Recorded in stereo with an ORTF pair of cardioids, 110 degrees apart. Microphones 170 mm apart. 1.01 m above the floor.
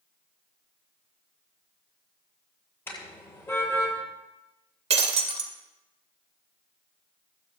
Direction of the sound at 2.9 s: 10° left.